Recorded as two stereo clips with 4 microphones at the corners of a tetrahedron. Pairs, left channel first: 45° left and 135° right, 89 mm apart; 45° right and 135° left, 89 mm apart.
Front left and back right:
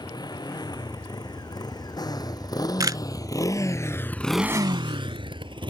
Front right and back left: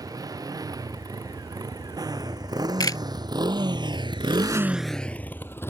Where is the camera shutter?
90° right.